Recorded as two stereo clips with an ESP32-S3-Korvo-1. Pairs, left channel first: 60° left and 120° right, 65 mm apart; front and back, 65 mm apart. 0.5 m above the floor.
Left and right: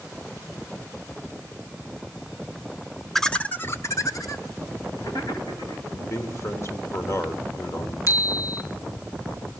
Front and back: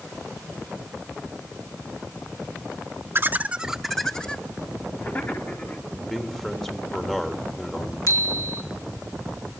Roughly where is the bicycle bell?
Ahead left.